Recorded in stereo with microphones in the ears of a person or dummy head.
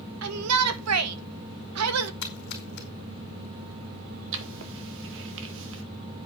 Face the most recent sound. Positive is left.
turn(degrees=-70)  # may be behind; listen again after turning